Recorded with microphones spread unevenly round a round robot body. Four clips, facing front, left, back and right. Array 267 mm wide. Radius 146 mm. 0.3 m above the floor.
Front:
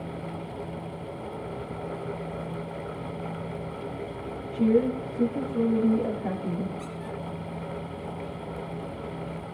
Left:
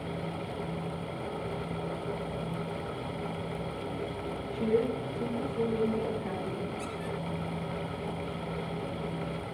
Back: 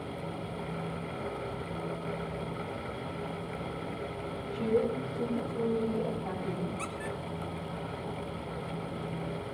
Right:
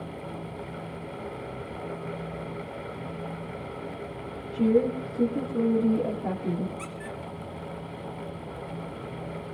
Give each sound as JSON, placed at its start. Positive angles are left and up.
{"t": 4.5, "sound": "a woman speaking", "azimuth_deg": -65, "distance_m": 4.5}
{"t": 6.8, "sound": "a squeak", "azimuth_deg": -155, "distance_m": 3.0}